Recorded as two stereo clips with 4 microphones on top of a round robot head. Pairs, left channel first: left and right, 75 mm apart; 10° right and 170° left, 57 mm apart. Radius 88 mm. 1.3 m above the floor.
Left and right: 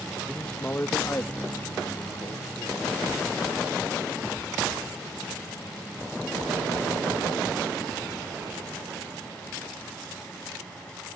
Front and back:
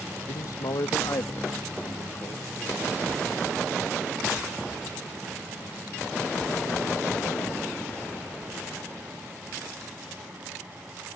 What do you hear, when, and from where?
0.3 s a man speaking: straight ahead; by 3.0 s 40° left